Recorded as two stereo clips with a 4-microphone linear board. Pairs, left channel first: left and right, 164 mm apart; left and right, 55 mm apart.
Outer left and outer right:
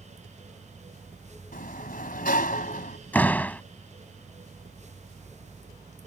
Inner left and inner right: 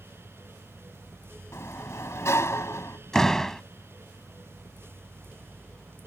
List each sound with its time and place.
1.5 s a sliding door: 65° left (ahead or behind)
3.1 s a door slam: 10° left (ahead or behind)